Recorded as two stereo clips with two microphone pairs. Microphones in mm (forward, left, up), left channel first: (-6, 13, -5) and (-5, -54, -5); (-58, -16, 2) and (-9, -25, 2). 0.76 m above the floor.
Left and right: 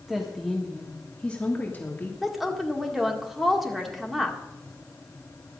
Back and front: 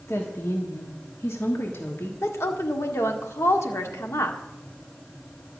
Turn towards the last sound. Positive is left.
turn(degrees=-175)